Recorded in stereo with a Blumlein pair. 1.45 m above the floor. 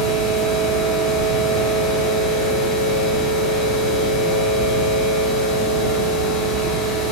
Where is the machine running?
30° left, 1.0 m.